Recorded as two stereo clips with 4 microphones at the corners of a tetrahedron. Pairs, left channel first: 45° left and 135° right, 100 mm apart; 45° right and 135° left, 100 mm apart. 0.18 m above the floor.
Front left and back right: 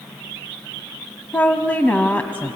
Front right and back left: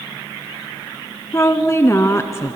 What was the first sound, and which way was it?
A woman speaking, 15° right.